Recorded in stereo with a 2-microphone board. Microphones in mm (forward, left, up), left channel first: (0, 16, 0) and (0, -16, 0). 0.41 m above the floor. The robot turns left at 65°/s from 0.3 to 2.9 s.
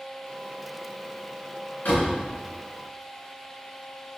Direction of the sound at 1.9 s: 65° left (ahead or behind).